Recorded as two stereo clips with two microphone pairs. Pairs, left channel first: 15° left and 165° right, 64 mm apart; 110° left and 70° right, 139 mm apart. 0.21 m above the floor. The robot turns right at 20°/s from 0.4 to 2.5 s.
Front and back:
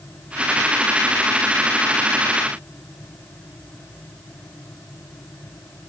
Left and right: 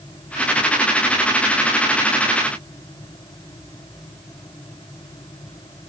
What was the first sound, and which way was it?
Only background noise.